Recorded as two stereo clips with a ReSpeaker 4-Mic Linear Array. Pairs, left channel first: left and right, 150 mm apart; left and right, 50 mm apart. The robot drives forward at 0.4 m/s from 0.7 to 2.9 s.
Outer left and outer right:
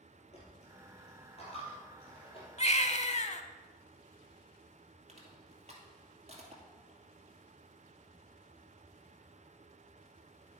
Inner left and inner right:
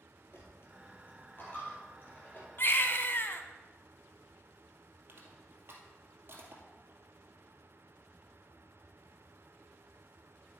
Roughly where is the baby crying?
Left.